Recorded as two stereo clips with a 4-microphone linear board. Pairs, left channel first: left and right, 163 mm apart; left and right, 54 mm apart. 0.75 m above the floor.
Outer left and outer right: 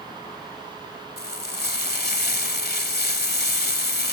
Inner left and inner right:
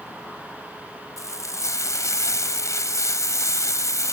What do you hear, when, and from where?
1.2 s frying: 75° left (ahead or behind)